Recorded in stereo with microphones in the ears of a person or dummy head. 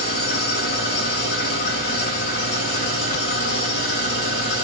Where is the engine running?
50° left (ahead or behind), 1.7 m.